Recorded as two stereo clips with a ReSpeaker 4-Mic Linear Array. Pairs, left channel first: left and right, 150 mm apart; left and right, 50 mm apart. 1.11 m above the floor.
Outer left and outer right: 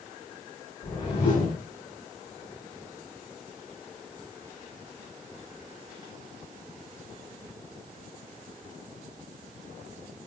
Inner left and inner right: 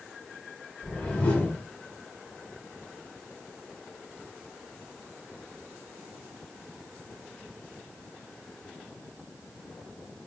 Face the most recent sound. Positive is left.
turn(degrees=25)  # may be behind; listen again after turning